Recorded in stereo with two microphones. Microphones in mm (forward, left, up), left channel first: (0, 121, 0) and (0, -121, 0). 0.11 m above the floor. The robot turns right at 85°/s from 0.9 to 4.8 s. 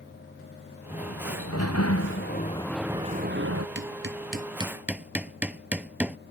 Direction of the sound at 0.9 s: 20° left.